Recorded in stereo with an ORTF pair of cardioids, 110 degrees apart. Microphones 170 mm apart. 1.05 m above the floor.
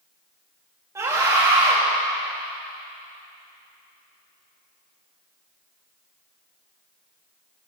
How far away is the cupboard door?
No cupboard door in this recording.